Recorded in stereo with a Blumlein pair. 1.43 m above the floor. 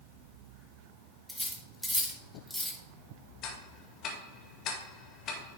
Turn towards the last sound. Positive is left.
turn(degrees=35)